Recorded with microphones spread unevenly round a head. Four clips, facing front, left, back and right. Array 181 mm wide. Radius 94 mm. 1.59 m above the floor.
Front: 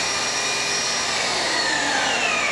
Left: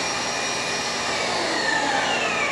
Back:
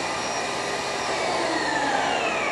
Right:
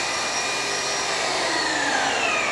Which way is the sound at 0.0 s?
135° left.